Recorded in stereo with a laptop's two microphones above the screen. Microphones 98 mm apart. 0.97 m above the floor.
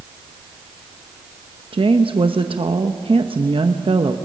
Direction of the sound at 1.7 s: 65° right (ahead or behind).